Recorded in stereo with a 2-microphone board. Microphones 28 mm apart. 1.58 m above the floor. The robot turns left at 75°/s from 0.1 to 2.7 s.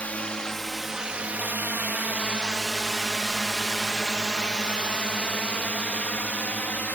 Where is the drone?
50° left (ahead or behind); by 7.0 s 60° left (ahead or behind).